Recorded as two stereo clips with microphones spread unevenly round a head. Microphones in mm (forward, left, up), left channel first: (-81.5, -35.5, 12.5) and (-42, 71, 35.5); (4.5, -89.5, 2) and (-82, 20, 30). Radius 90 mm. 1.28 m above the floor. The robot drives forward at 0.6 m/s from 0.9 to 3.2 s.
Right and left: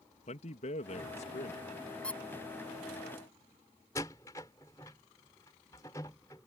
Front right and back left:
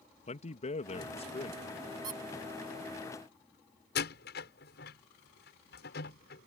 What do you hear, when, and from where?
0.3 s a man speaking: 85° right; by 1.7 s 100° right
2.0 s a squeak: 160° left
4.0 s a door slam: 35° right